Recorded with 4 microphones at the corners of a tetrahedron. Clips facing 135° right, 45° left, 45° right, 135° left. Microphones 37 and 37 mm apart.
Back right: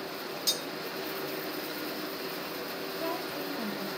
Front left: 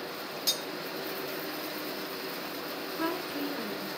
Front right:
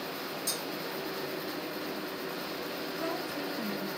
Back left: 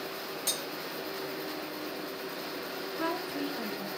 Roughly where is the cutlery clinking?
Behind left.